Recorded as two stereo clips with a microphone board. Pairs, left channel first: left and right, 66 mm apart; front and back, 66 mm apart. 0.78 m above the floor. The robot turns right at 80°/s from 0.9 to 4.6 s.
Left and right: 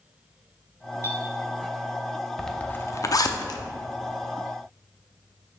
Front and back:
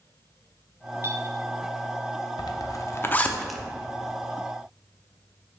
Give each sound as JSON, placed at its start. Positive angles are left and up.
{"t": 1.0, "sound": "a clink", "azimuth_deg": 130, "distance_m": 1.1}
{"t": 2.4, "sound": "a zipper", "azimuth_deg": 0, "distance_m": 0.5}